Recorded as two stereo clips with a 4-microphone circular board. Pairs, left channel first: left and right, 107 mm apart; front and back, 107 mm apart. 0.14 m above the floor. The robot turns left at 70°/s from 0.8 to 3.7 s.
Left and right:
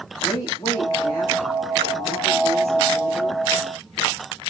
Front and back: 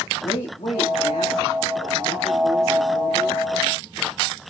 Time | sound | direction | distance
0.2 | a woman speaking | 40° left | 5.5 m